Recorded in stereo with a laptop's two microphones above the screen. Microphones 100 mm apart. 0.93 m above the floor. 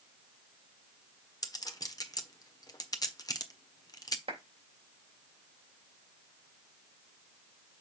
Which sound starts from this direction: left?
A clink, at 1.4 s.